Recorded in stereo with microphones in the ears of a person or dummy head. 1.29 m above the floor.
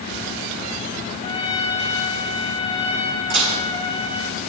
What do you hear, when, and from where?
1.2 s a trumpet: 30° left (ahead or behind), 1.8 m
3.3 s dishes clattering: 55° right (ahead or behind), 5 m